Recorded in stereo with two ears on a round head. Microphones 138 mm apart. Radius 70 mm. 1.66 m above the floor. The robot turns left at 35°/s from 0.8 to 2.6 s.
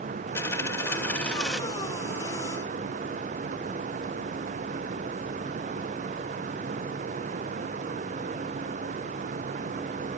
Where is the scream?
No scream in this recording.